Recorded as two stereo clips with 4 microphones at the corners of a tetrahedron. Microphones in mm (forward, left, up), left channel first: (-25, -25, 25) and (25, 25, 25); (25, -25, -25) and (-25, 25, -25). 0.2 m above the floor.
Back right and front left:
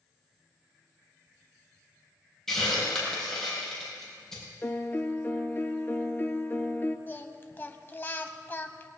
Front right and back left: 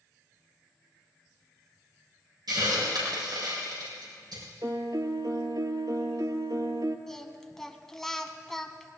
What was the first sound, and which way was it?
A hiss, 140° left.